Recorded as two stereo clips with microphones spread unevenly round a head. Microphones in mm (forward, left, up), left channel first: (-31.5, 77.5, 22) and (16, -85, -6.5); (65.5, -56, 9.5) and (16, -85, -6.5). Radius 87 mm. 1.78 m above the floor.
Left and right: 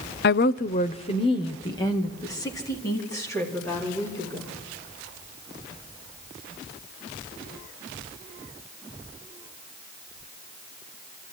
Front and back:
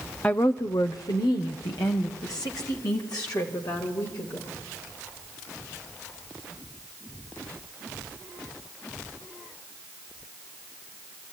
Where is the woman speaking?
105° left, 0.5 m; by 4.5 s 30° left, 5.5 m.